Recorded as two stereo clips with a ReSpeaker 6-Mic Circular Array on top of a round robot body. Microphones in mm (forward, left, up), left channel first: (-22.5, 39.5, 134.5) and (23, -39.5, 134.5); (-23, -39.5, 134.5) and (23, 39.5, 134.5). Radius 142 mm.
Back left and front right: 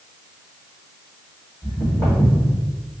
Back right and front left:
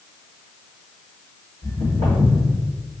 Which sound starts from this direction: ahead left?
Footsteps, at 1.6 s.